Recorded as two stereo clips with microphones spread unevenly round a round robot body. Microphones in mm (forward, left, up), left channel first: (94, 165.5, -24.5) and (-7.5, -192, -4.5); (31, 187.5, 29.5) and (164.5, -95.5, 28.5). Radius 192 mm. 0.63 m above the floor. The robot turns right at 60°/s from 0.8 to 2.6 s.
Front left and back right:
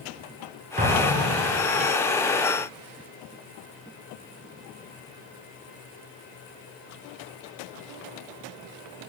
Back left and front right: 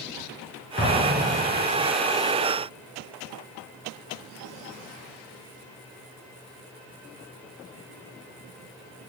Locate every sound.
0.8 s an explosion: 175° right, 4.5 m; by 1.9 s 110° right, 4.5 m